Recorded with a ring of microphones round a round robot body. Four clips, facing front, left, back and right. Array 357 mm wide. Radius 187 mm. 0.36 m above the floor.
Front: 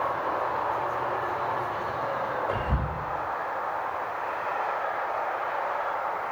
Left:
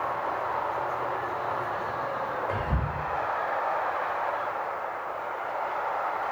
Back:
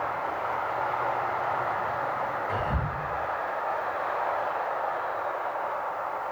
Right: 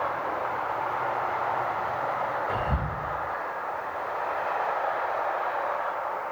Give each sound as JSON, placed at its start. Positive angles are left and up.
{"t": 2.5, "sound": "whispering", "azimuth_deg": 40, "distance_m": 1.1}